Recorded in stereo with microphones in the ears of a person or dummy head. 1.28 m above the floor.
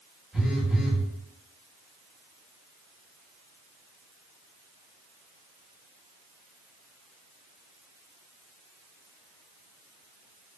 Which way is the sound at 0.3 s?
Centre (ahead or behind).